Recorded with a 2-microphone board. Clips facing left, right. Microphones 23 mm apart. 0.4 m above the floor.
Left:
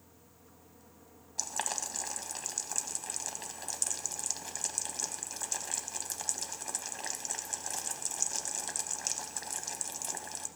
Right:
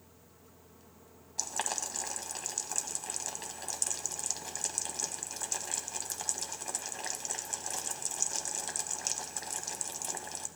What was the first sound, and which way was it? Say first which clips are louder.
Boiling: even; centre (ahead or behind).